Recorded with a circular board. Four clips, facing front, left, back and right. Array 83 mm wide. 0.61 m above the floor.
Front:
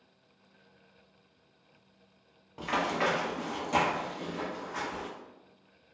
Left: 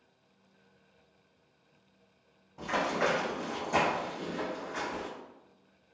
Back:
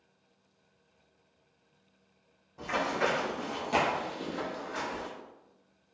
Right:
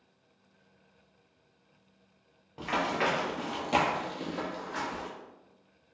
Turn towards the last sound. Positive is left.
turn(degrees=-135)